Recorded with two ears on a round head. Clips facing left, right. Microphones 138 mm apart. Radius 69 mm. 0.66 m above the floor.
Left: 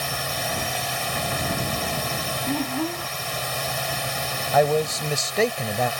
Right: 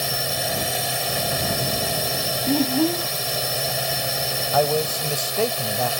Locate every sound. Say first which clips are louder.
0.0 s a drone: right 2 dB; 45° right (ahead or behind)
2.5 s a child speaking: right 7 dB; 35° right (ahead or behind)
4.5 s a man speaking: left 2 dB; 5° left (ahead or behind)